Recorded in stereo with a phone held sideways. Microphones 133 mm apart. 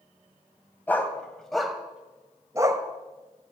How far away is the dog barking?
About 1.9 m.